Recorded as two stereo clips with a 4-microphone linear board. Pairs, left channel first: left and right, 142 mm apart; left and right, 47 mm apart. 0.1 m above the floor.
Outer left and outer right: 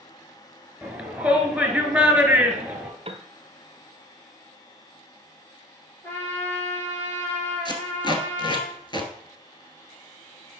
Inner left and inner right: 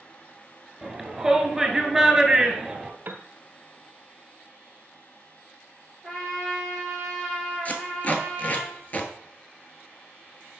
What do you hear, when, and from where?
0.8 s a shout: 10° right (ahead or behind), 1.6 m
3.0 s a piano: 45° right (ahead or behind), 0.7 m
6.0 s a trumpet: 15° left (ahead or behind), 2 m
7.7 s tape being pulled: 35° left (ahead or behind), 1.1 m